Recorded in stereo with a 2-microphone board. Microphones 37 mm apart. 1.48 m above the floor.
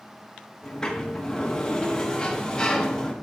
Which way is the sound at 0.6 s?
20° left (ahead or behind).